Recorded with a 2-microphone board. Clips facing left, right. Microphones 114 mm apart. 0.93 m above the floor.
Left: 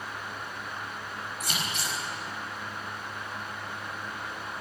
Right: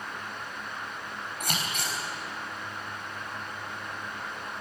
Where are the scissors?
60° right (ahead or behind), 4.5 m.